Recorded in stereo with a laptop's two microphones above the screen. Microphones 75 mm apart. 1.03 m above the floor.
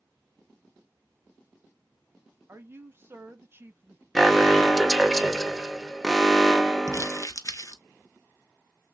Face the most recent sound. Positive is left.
turn(degrees=45)  # may be behind; listen again after turning